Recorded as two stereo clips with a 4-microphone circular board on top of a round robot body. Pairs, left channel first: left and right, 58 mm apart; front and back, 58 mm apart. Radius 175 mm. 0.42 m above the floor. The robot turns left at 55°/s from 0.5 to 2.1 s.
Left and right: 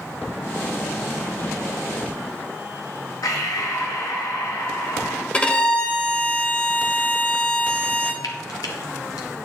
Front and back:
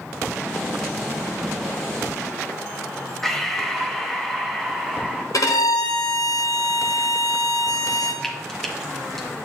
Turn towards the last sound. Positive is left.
turn(degrees=85)